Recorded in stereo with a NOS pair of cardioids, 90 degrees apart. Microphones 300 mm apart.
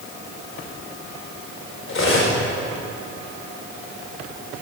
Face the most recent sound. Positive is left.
turn(degrees=45)